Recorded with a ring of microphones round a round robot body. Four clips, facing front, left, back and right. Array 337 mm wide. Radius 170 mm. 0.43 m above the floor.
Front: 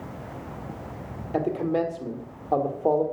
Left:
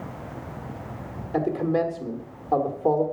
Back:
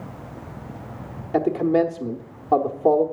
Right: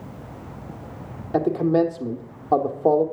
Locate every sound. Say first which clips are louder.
1.3 s a man speaking: right 4 dB, back 6 dB; 125° right, 1.2 m